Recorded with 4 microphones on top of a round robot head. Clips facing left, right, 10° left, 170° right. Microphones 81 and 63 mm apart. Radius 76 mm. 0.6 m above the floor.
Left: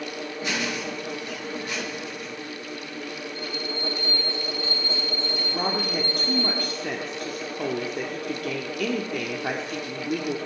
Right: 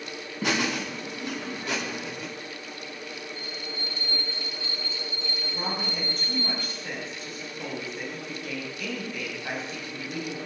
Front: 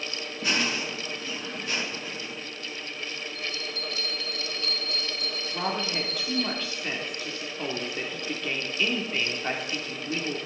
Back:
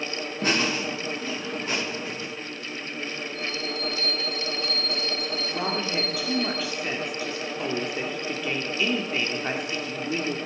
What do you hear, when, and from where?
0.4 s laughter: 125° right, 6 m; by 2.3 s 110° right, 6.5 m
3.4 s a bell: 120° left, 5.5 m
5.5 s a woman speaking: 105° left, 1.7 m